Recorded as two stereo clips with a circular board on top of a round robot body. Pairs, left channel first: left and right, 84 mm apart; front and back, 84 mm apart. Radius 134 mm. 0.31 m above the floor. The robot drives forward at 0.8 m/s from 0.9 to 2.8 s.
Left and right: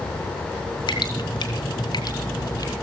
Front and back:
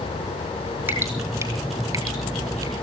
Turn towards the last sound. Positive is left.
turn(degrees=140)